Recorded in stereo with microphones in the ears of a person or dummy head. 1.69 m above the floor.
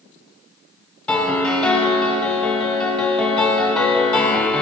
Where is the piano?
10° left (ahead or behind), 0.9 m.